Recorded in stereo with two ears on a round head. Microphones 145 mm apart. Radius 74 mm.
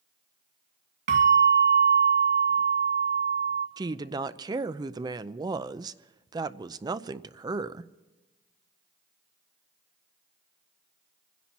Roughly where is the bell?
Right.